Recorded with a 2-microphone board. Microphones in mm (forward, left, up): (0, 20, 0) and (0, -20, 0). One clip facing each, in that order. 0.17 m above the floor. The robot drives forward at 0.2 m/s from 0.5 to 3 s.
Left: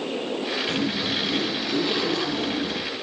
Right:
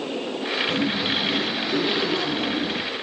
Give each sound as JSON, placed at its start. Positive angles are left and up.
{"t": 0.7, "sound": "a zipper", "side_deg": -15, "distance_m": 4.0}